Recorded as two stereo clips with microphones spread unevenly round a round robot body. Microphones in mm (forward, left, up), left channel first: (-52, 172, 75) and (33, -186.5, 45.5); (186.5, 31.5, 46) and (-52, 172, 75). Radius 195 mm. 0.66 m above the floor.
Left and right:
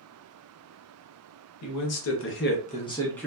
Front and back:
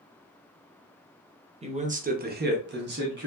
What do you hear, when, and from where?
1.6 s a man speaking: 80° left, 0.8 m; by 3.3 s 165° right, 0.8 m